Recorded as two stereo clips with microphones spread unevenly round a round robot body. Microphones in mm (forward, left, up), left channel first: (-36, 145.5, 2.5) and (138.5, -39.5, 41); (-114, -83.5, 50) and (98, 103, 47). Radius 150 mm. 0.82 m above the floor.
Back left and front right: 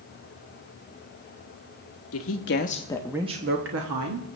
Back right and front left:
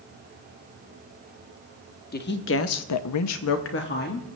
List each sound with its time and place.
2.1 s a woman speaking: 165° left, 1.3 m; by 4.2 s 80° right, 1.4 m